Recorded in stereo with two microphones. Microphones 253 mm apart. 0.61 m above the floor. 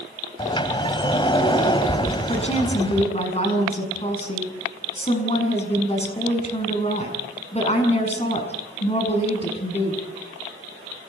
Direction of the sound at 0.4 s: 20° left (ahead or behind).